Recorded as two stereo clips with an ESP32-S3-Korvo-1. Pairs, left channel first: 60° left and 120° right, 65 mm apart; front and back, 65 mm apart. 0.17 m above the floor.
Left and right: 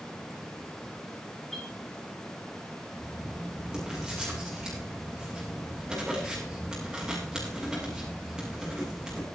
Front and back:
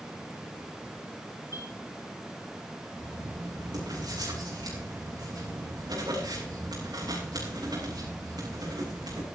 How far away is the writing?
About 6 m.